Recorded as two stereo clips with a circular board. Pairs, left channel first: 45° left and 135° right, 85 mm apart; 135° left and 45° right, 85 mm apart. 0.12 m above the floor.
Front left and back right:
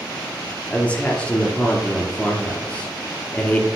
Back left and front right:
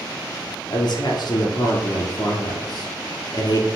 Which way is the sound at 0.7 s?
115° left.